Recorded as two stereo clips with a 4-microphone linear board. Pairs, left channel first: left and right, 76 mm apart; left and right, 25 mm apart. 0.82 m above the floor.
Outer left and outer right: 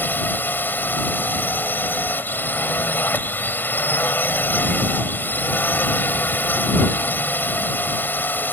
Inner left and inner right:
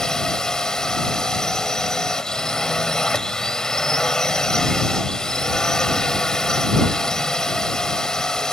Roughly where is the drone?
Left.